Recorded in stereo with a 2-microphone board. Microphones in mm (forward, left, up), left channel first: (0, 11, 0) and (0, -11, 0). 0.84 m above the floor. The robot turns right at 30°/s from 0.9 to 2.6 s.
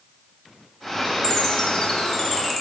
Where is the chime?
30° left (ahead or behind), 0.8 m; by 2.6 s 5° left (ahead or behind), 0.8 m.